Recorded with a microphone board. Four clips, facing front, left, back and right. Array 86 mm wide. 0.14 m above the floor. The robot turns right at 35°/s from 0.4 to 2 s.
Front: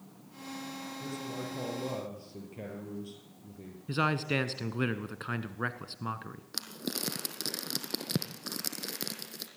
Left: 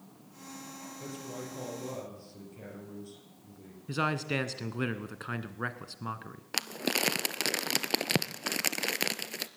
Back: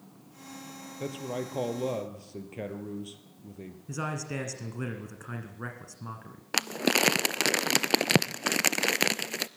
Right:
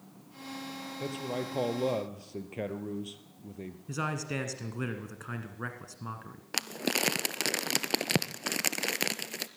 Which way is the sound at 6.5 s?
Straight behind.